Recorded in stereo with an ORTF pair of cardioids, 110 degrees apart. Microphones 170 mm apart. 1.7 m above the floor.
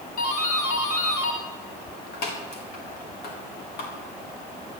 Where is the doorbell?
65° left, 4 m.